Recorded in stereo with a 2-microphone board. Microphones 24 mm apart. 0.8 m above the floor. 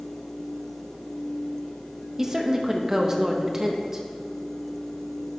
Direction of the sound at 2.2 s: 15° right (ahead or behind).